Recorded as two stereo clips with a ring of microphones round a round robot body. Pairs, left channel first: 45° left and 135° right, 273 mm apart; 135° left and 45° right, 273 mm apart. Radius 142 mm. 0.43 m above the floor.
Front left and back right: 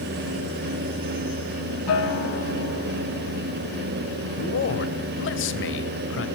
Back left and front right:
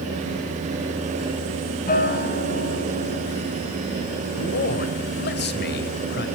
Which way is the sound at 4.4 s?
85° left.